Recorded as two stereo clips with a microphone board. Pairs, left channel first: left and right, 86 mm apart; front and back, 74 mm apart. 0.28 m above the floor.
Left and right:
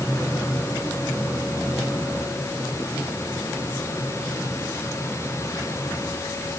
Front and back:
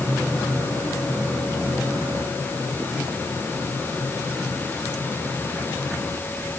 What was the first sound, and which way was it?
Only background noise.